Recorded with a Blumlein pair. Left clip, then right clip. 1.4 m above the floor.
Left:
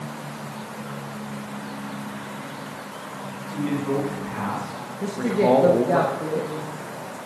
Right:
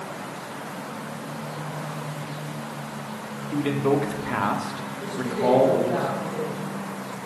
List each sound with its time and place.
3.5 s a man speaking: 50° right, 2.5 m; by 6.0 s 35° left, 1.2 m
5.0 s a woman speaking: 25° left, 1.2 m